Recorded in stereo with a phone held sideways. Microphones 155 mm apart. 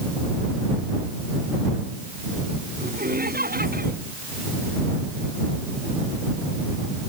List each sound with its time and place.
2.8 s laughter: 80° right